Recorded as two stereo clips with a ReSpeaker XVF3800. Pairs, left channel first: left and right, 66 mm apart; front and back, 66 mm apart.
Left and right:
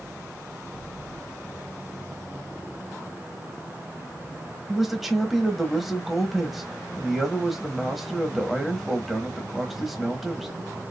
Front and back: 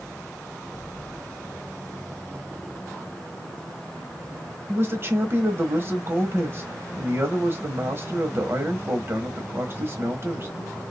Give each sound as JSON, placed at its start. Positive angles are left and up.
{"t": 4.7, "sound": "a man speaking", "azimuth_deg": 180, "distance_m": 1.1}